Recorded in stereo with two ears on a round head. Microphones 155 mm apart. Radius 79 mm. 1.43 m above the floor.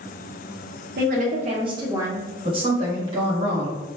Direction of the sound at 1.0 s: 60° right (ahead or behind).